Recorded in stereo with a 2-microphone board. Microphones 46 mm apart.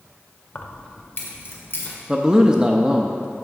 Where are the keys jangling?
40° left (ahead or behind), 0.7 m; by 1.9 s 55° left (ahead or behind), 1.7 m.